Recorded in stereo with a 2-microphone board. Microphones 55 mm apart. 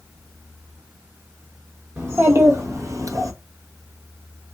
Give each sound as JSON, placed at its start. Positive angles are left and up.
{"t": 2.0, "sound": "a child speaking", "side_deg": -45, "distance_m": 1.1}